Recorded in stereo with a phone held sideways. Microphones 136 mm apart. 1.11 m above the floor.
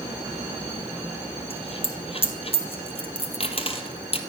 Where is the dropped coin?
45° left (ahead or behind), 1.8 m.